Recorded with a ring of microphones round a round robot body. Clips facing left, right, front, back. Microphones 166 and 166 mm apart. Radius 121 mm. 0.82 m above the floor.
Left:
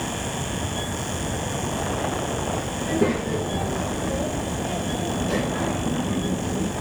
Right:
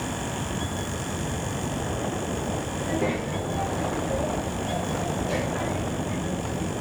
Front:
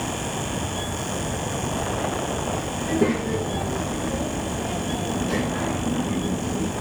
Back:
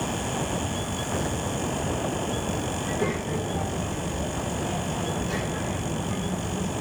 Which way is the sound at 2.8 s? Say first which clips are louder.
Left 5 dB, front 10 dB; 50° left.